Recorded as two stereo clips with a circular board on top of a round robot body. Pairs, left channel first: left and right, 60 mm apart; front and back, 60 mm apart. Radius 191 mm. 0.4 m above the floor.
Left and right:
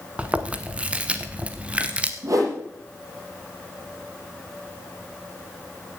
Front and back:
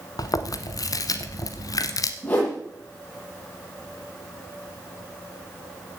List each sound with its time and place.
0.2 s chewing: 20° right, 0.8 m
2.2 s a whoosh: 60° right, 7 m